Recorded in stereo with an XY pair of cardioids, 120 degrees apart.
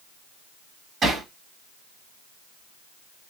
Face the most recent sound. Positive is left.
turn(degrees=-45)